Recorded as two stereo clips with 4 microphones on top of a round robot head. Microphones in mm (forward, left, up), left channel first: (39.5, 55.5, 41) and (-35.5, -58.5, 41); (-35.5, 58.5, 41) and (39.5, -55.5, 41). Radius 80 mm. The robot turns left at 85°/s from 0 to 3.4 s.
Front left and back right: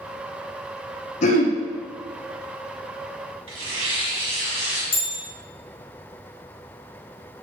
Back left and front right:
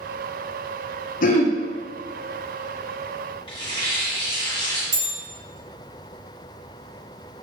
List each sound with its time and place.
1.2 s throat clearing: 95° left, 0.6 m; by 1.6 s 65° left, 0.6 m
3.5 s tearing paper: straight behind, 1.6 m
4.9 s a bell: straight ahead, 1.5 m